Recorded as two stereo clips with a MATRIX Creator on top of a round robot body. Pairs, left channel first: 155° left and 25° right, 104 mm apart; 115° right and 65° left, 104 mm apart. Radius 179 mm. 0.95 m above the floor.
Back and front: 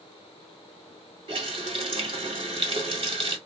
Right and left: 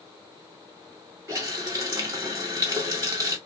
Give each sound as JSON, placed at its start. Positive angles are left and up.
{"t": 1.3, "sound": "a running tap", "azimuth_deg": 10, "distance_m": 1.4}